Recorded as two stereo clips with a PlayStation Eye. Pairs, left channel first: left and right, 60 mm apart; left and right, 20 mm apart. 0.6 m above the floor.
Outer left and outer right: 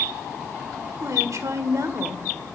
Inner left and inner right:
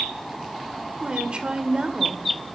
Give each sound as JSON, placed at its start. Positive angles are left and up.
{"t": 1.0, "sound": "a woman speaking", "side_deg": -55, "distance_m": 1.7}